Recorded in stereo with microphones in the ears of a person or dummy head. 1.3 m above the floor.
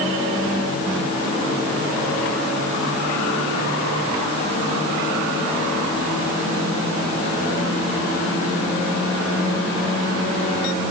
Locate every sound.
Only background noise.